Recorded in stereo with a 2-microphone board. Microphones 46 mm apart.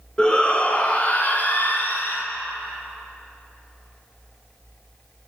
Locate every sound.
0.2 s a shout: 20° left (ahead or behind), 1.9 m; by 2.2 s 50° left (ahead or behind), 2.5 m